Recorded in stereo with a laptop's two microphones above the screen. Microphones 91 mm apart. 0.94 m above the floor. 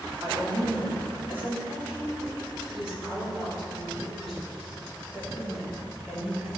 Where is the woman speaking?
35° right (ahead or behind), 2.5 m; by 6.5 s centre (ahead or behind), 6 m.